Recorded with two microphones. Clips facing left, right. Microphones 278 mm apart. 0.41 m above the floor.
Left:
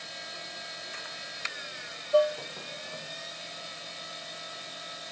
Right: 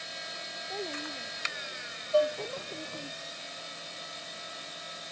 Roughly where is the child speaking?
Right.